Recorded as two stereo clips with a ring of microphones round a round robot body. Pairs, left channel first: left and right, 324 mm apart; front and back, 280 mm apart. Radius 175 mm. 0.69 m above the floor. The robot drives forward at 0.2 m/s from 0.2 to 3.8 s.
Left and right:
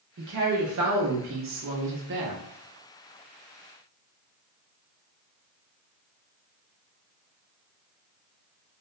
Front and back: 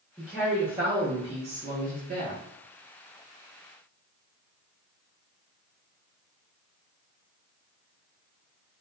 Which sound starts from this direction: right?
A woman speaking, at 0.2 s.